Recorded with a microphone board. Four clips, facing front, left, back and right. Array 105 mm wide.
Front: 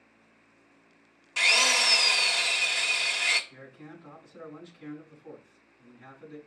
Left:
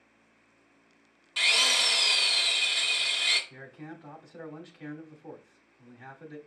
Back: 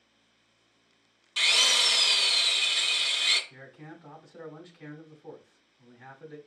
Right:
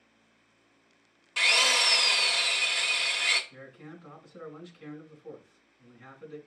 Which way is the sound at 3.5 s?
110° left.